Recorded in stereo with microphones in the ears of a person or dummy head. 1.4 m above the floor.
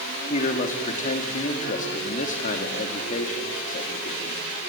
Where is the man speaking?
45° left (ahead or behind), 2.5 m.